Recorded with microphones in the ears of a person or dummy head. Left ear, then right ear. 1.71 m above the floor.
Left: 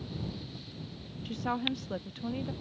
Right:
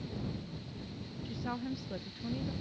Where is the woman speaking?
30° left (ahead or behind).